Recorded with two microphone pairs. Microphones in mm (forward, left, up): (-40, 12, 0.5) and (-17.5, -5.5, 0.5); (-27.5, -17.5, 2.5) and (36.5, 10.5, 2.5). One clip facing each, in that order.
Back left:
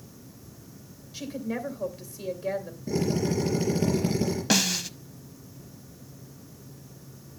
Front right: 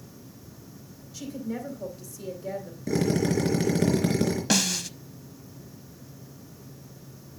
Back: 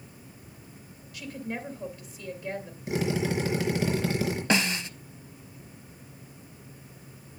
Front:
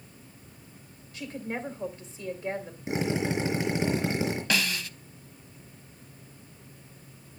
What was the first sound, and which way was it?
A woman speaking, 80° left.